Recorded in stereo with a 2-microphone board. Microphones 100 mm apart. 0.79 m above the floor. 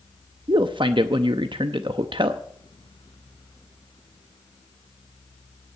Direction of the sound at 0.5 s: 55° right (ahead or behind).